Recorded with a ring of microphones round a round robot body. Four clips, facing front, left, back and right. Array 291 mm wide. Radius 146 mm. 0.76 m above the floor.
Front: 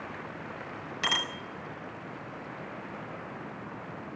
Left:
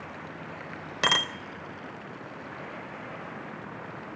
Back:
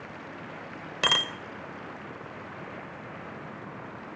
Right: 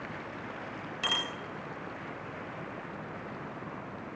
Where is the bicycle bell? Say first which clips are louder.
Left 8 dB, back 4 dB; 130° left, 2.5 m.